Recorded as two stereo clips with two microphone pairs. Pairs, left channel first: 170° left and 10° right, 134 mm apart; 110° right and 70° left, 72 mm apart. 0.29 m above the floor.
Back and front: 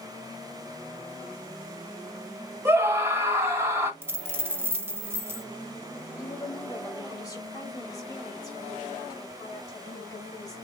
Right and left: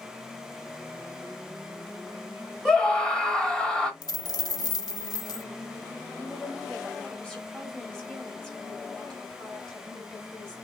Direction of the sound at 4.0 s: 85° right.